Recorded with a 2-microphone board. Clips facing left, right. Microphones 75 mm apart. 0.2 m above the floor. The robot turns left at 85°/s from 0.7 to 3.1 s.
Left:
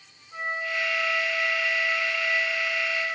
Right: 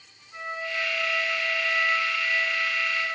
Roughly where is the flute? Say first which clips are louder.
Left 2 dB; ahead left.